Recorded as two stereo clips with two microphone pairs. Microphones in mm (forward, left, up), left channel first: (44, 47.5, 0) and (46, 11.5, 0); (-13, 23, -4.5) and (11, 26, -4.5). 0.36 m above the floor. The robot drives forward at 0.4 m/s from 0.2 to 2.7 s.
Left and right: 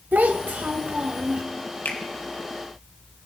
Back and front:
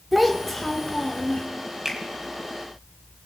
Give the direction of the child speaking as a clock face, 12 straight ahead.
3 o'clock.